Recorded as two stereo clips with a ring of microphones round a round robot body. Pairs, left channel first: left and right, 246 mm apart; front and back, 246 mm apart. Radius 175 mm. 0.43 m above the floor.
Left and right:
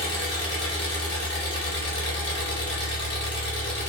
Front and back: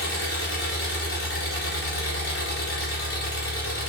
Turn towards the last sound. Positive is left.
turn(degrees=40)